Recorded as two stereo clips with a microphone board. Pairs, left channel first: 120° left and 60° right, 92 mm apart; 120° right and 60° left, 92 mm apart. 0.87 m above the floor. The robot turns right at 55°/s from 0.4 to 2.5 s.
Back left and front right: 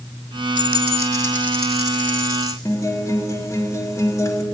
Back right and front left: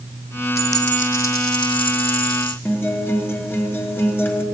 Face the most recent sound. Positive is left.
turn(degrees=175)